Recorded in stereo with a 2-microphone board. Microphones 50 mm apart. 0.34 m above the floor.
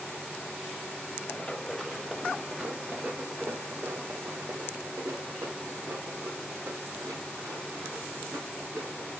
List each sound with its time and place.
1.3 s running footsteps: 5° left (ahead or behind), 1.4 m; by 9.1 s 85° right, 3.5 m